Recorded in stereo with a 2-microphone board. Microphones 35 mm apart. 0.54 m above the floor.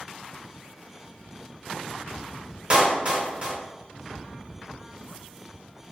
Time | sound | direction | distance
2.7 | a clap | 35° right (ahead or behind) | 0.9 m